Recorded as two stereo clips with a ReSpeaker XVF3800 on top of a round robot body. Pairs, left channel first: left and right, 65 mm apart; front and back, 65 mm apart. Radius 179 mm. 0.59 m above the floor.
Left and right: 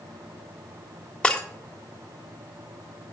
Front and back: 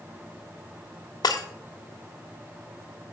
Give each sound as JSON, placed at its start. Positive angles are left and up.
{"t": 1.2, "sound": "breaking glass", "azimuth_deg": 15, "distance_m": 1.2}